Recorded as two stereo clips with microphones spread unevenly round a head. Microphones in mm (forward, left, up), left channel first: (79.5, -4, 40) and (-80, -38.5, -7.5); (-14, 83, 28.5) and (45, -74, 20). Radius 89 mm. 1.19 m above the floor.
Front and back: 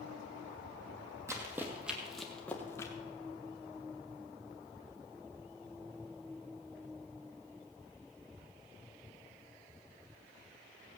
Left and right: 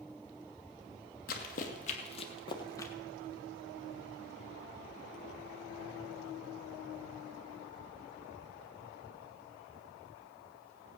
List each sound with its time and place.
1.3 s running footsteps: 105° left, 1.7 m; by 2.9 s 50° left, 1.5 m